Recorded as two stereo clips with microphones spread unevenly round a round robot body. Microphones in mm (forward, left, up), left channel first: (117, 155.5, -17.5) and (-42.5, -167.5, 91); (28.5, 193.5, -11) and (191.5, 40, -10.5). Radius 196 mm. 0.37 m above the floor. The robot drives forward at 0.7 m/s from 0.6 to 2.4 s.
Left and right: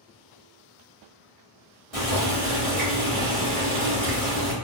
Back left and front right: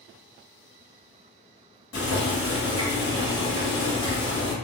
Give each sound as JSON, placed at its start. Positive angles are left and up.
{"t": 1.9, "sound": "boiling", "azimuth_deg": 150, "distance_m": 1.4}